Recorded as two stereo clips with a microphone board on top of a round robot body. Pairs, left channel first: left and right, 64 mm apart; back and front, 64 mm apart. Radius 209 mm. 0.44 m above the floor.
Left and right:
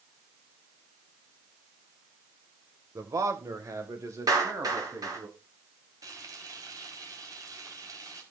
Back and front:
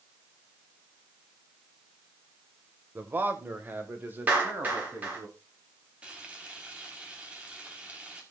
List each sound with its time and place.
3.0 s a man speaking: 60° right, 2.5 m; by 5.3 s 55° right, 4.5 m
4.3 s a clap: 65° right, 8.5 m
6.0 s frying: 70° right, 5 m